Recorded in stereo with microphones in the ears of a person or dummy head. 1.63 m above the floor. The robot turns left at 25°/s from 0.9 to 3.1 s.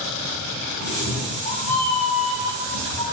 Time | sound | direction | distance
0.8 | a cat meowing | 120° left | 1.1 m